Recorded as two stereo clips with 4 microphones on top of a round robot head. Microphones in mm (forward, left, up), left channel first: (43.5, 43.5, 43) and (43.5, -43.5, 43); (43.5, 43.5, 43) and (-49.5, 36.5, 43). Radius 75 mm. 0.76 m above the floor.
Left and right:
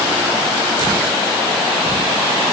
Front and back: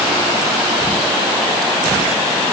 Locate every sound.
Only background noise.